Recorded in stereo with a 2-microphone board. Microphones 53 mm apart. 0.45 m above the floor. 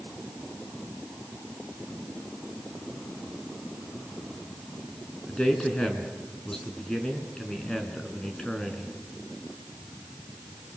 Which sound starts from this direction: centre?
A man speaking, at 5.3 s.